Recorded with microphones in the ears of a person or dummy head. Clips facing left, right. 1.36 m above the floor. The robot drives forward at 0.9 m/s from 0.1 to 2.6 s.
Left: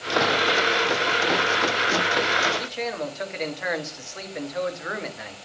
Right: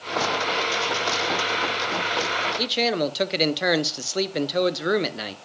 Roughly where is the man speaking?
Right.